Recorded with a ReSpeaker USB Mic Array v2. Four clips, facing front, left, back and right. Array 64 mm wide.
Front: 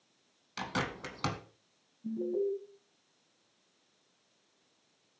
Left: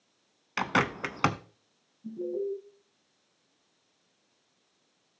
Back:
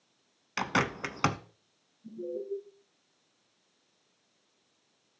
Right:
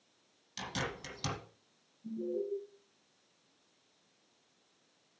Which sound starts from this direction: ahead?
An alarm, at 2.0 s.